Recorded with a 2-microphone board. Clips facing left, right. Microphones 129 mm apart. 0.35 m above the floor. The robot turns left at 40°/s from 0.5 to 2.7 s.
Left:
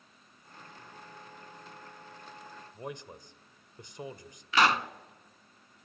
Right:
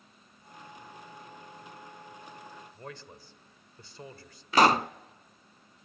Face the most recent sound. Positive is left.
turn(degrees=-40)  # may be behind; listen again after turning